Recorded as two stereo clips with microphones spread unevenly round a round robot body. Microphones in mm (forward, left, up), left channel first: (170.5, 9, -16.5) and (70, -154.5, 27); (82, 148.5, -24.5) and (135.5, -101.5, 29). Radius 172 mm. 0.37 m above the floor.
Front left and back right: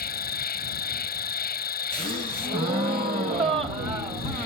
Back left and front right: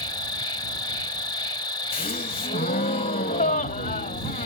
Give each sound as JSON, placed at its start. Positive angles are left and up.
{"t": 0.0, "sound": "an insect", "azimuth_deg": 35}
{"t": 1.9, "sound": "a gasp", "azimuth_deg": 160}